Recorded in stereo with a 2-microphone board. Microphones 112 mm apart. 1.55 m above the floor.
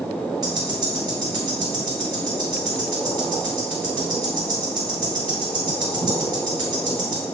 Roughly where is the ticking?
Right.